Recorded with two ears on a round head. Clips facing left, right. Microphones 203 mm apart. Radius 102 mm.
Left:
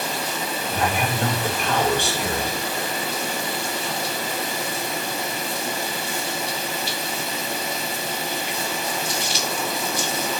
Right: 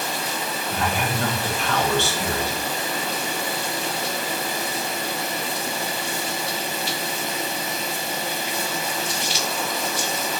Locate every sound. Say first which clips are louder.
0.7 s a man speaking: left 1 dB; 15° left (ahead or behind), 4.5 m